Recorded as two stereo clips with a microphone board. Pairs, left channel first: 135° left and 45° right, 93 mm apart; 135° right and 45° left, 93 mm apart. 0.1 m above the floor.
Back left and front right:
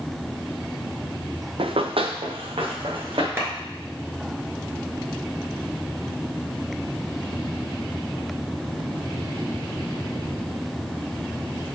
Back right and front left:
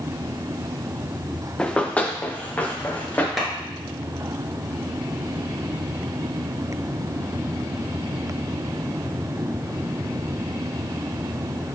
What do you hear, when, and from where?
1.6 s running footsteps: 55° right, 0.6 m; by 3.3 s 65° right, 1.5 m
3.4 s a clap: 40° right, 1.4 m